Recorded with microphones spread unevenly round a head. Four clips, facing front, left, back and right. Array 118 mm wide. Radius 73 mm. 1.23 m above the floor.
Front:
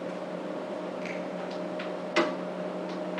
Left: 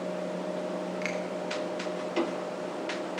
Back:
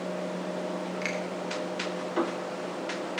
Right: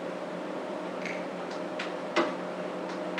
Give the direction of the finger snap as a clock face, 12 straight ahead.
9 o'clock.